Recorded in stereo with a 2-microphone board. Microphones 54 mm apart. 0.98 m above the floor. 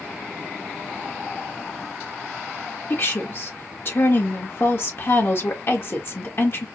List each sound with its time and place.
2.9 s a woman speaking: 50° left (ahead or behind), 1.3 m